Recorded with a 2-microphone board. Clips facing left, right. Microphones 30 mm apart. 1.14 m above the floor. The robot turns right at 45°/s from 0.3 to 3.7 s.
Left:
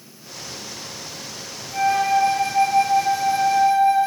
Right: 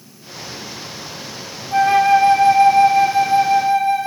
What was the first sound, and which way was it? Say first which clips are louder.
A flute: right 6 dB; 105° right.